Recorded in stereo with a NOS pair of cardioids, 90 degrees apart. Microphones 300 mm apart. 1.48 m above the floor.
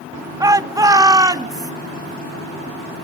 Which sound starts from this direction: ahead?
A shout, at 0.4 s.